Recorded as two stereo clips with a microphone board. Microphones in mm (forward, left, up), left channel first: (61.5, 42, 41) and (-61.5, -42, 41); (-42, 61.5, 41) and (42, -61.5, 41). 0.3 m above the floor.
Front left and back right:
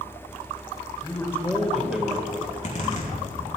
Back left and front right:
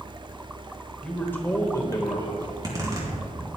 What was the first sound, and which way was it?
A man speaking, 50° left.